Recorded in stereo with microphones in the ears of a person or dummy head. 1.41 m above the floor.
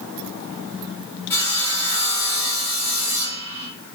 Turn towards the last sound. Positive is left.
turn(degrees=15)  # may be behind; listen again after turning